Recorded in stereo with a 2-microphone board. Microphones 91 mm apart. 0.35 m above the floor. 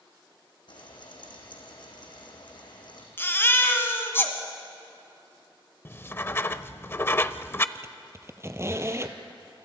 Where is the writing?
25° left (ahead or behind), 0.5 m.